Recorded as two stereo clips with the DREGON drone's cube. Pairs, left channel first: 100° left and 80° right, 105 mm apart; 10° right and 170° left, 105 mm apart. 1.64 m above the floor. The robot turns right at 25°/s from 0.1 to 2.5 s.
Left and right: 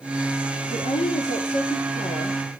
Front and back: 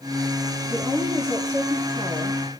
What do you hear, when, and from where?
0.7 s a woman speaking: 70° left, 3.5 m; by 2.5 s 115° left, 3.5 m